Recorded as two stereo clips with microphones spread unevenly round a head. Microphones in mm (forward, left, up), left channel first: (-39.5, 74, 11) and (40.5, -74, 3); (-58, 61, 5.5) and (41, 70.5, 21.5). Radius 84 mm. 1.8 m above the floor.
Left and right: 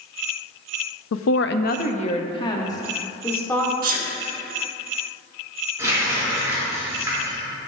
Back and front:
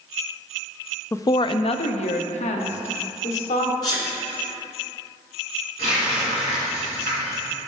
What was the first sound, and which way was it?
A woman speaking, 115° left.